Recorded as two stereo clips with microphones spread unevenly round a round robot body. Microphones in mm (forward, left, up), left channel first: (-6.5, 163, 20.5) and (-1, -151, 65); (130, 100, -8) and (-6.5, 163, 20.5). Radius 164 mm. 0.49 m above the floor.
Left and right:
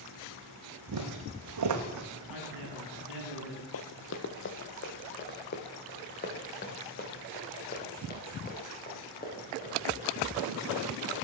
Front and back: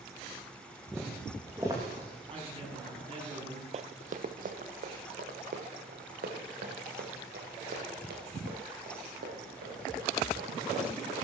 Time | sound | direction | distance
0.9 | footsteps | 115° right | 2 m
2.3 | a man speaking | 105° left | 5 m
3.7 | running footsteps | 135° left | 0.8 m